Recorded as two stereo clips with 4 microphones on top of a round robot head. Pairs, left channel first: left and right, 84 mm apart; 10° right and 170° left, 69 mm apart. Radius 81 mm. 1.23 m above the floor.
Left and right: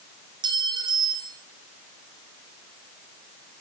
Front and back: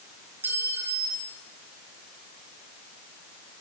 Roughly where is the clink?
Behind right.